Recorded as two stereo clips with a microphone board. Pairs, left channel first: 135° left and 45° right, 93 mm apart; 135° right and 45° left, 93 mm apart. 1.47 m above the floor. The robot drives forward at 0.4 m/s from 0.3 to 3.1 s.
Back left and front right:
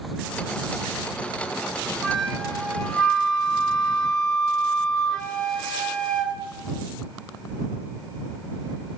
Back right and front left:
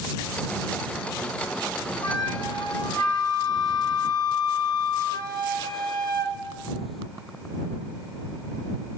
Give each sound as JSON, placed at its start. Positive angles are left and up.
{"t": 2.0, "sound": "a flute", "azimuth_deg": -140, "distance_m": 1.9}